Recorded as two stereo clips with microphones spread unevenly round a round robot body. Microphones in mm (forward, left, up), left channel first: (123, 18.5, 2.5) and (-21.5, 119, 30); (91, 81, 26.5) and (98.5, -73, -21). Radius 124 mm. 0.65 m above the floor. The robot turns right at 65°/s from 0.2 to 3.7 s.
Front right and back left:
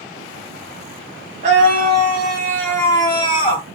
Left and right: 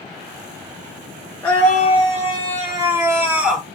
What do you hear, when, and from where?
1.4 s a scream: 170° right, 0.9 m; by 3.6 s 25° right, 0.9 m